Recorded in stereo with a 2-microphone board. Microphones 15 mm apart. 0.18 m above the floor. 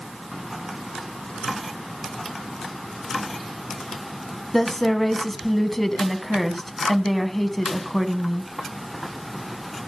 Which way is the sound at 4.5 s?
25° left (ahead or behind).